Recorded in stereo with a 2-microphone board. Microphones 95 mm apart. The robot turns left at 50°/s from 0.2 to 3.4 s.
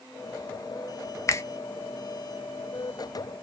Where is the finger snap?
35° left (ahead or behind), 0.5 m; by 1.4 s 30° left (ahead or behind), 0.5 m.